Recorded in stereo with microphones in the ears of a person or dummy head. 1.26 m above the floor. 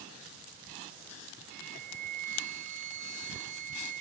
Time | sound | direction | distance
1.5 | a flute | 50° right (ahead or behind) | ?